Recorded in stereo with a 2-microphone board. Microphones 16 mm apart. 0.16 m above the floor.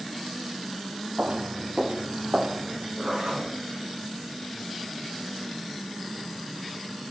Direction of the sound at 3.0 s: 60° right (ahead or behind).